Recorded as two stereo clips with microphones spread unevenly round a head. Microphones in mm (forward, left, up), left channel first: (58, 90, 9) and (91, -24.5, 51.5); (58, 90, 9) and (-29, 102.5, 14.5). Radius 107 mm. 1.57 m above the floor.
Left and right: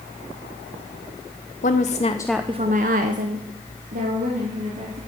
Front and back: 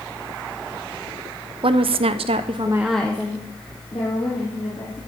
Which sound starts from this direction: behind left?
A woman speaking, at 1.6 s.